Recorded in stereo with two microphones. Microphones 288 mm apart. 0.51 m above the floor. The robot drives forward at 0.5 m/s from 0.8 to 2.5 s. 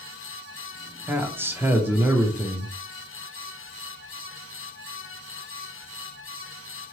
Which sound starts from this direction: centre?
A man speaking, at 1.1 s.